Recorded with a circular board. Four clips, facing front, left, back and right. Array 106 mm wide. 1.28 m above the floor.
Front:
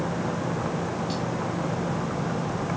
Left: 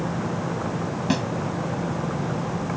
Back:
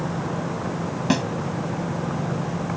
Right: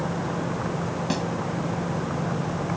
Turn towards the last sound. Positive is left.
turn(degrees=165)